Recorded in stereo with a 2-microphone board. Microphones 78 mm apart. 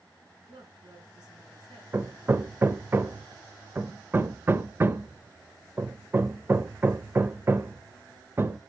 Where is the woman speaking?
60° right (ahead or behind), 5 m.